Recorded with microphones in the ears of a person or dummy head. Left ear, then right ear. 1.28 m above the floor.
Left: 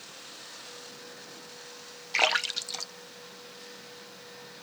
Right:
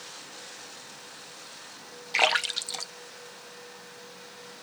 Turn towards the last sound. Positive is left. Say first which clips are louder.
# right 2 dB
turn(degrees=-15)  # may be behind; listen again after turning